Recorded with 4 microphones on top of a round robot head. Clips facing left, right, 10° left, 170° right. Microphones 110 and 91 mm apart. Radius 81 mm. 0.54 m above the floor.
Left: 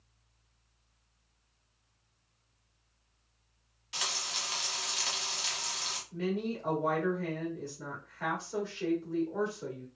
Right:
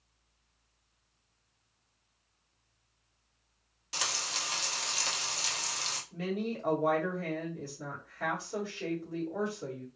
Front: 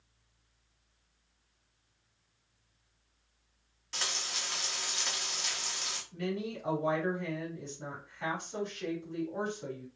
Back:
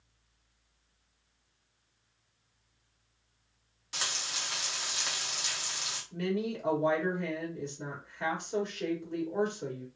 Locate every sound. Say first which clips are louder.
3.9 s frying: right 2 dB, back 1 dB; 90° right, 1.4 m
6.1 s a woman speaking: left 1 dB, back 4 dB; 170° right, 1.7 m